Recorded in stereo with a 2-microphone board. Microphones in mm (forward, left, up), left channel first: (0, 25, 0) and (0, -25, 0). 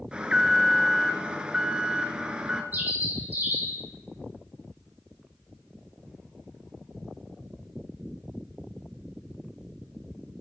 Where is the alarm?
20° right (ahead or behind), 1.1 m.